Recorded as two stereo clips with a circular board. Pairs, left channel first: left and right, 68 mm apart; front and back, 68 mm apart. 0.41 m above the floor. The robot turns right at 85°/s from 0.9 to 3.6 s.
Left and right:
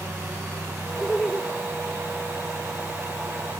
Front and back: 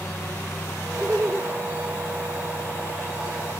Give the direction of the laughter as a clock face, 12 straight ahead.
7 o'clock.